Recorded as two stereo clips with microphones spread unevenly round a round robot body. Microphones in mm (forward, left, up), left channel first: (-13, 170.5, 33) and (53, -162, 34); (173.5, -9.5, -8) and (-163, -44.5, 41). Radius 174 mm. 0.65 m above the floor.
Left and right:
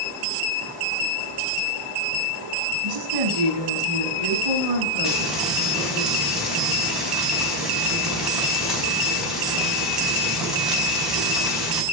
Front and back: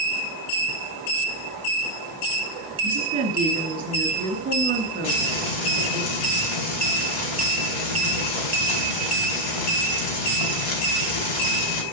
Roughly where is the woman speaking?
Right.